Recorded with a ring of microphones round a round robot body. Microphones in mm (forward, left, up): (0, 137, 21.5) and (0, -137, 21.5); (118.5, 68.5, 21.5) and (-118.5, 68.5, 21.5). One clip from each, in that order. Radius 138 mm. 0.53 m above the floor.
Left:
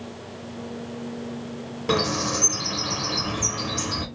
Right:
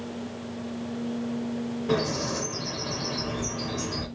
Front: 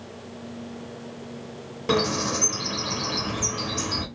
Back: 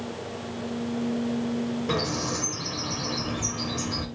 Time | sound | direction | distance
1.9 | a bird | 45° left | 3 m